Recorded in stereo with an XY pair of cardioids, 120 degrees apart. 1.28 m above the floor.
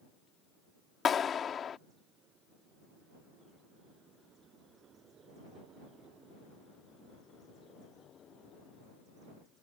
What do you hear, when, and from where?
1.1 s a clap: 40° left